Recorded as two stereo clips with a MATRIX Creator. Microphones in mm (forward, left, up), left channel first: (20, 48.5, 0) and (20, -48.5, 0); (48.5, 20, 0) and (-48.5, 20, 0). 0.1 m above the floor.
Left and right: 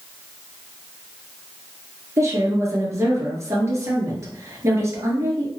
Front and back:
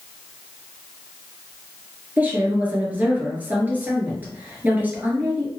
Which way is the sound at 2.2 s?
120° right.